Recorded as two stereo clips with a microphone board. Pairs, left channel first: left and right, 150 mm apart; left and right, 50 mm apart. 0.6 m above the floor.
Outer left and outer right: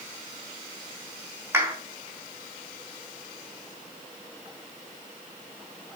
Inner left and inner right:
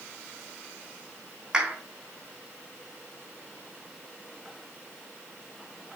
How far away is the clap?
About 3.5 m.